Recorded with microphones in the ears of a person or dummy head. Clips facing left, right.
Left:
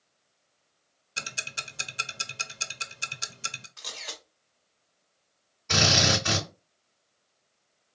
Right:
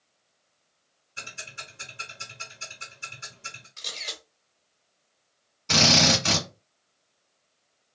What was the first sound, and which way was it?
Ticking, 85° left.